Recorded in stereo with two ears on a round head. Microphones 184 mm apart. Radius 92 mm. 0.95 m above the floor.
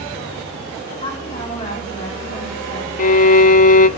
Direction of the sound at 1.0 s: 25° left (ahead or behind).